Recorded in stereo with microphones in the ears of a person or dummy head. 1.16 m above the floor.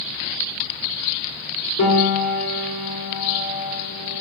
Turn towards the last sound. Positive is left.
turn(degrees=75)  # may be behind; listen again after turning